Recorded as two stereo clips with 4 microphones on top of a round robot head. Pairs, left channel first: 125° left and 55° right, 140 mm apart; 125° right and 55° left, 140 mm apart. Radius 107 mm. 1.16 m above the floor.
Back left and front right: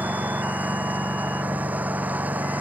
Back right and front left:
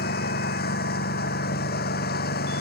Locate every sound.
0.0 s a lawn mower: 135° right